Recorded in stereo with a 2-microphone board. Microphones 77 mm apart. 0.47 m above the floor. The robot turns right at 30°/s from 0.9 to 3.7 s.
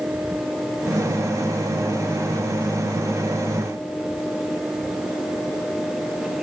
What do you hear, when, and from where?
Only background noise.